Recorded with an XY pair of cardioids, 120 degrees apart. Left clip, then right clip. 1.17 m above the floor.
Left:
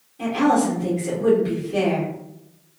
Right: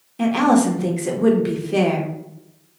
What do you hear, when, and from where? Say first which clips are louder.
0.2 s a woman speaking: right 2 dB; 60° right, 0.9 m